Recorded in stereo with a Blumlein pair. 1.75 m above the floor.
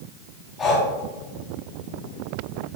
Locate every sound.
0.6 s breathing: 25° left, 4 m